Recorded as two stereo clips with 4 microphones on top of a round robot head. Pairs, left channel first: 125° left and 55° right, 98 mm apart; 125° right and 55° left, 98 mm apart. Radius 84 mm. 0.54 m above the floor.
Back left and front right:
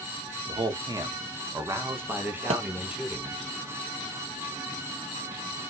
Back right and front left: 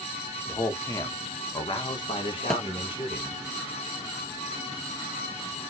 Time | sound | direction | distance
0.5 | a man speaking | 65° right | 1.3 m
2.5 | a thud | 40° right | 1.0 m